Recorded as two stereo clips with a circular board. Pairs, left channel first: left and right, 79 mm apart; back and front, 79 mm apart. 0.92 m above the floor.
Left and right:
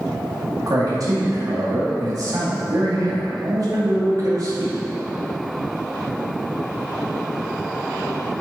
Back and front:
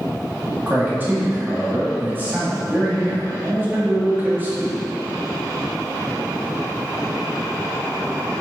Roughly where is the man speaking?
Ahead right.